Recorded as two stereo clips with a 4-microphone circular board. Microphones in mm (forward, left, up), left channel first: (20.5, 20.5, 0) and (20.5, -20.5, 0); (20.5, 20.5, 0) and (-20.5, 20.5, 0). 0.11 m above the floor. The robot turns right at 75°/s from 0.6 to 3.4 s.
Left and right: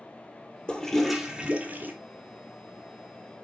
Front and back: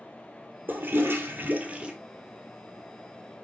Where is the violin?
No violin in this recording.